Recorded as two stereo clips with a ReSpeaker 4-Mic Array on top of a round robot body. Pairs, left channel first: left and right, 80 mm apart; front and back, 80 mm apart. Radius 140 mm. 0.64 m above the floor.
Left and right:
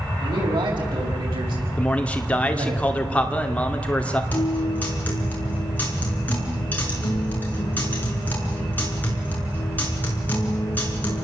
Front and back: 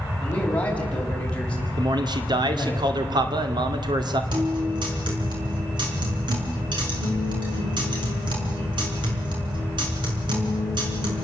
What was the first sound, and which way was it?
A man speaking, 75° right.